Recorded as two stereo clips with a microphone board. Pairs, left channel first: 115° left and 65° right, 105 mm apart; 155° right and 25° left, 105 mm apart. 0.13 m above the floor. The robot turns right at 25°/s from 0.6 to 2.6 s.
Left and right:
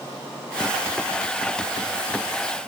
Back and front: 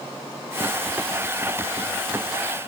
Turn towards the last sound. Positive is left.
No sound to turn to.